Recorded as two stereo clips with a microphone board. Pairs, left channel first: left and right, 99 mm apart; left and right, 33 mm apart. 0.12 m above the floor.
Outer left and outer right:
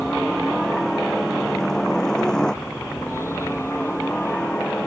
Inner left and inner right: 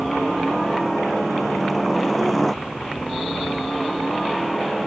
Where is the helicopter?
Centre (ahead or behind); by 4.9 s 10° left (ahead or behind).